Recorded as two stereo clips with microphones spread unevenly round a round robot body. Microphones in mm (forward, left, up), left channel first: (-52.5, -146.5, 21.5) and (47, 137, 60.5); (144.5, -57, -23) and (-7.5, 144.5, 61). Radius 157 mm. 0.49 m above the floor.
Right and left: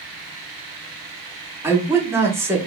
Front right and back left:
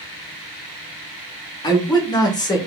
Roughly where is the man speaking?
Ahead.